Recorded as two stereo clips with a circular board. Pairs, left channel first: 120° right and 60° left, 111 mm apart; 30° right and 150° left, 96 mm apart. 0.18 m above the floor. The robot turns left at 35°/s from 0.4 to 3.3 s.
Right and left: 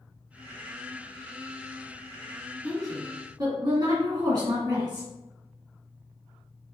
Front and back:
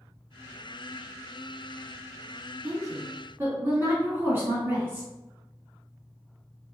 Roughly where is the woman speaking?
Behind left.